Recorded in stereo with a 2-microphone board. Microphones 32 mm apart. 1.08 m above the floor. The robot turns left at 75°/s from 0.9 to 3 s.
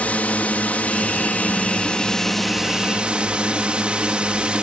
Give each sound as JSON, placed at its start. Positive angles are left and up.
{"t": 0.0, "sound": "a drone", "azimuth_deg": 115}